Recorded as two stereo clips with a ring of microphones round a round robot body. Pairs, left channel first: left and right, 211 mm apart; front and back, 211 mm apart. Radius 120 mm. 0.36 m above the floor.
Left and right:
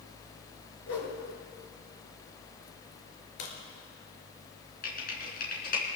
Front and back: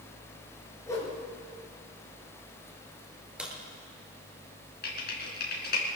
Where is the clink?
I don't hear a clink.